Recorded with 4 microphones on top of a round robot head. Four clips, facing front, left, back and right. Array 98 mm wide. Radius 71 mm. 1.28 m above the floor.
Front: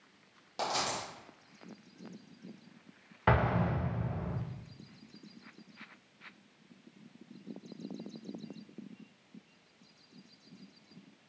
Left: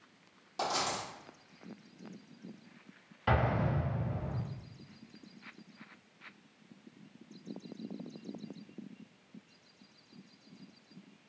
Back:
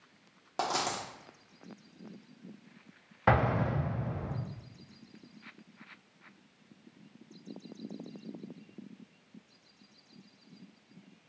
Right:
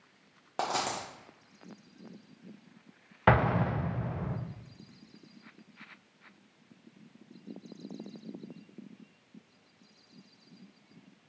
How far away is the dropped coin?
About 0.8 m.